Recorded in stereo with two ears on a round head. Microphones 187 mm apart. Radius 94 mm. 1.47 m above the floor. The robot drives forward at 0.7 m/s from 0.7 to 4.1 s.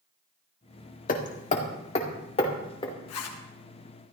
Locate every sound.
1.1 s hammering: 45° left (ahead or behind), 1.7 m; by 2.9 s 25° left (ahead or behind), 2.5 m
3.1 s a zipper: 80° left, 1.9 m; by 3.4 s 85° left, 1.8 m